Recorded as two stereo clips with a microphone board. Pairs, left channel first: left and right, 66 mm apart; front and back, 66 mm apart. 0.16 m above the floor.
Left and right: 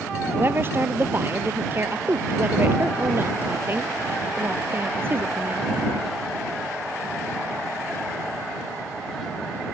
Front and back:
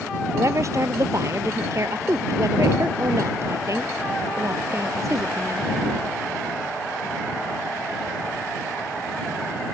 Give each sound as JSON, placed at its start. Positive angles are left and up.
{"t": 0.3, "sound": "a woman speaking", "azimuth_deg": -140}